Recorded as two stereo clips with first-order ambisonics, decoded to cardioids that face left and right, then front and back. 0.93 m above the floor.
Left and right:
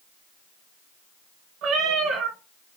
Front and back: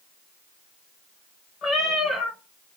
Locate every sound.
1.6 s a cat meowing: 55° right, 1.2 m